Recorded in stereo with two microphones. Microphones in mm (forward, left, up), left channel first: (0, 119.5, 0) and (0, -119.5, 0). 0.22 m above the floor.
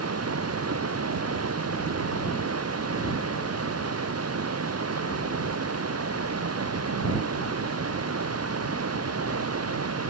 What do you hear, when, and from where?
0.0 s running water: 75° right (ahead or behind)